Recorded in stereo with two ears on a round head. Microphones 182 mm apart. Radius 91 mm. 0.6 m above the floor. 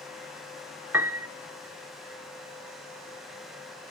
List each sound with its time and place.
0.9 s a piano: 10° right (ahead or behind), 1.1 m